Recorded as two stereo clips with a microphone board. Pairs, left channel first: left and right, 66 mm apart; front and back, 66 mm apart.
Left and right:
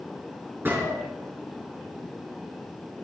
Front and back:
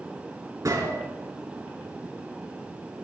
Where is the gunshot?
150° right, 6 m.